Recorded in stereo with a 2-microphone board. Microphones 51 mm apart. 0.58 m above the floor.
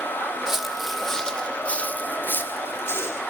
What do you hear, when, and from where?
0.5 s footsteps: 10° right (ahead or behind), 1.2 m; by 3.2 s 55° left (ahead or behind), 1.8 m